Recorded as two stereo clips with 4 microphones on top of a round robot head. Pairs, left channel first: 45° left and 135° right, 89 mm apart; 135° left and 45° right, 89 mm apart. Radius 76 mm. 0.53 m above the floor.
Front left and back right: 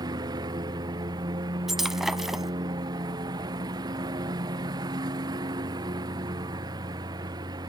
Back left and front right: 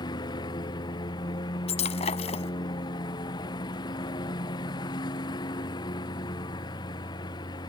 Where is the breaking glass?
140° left.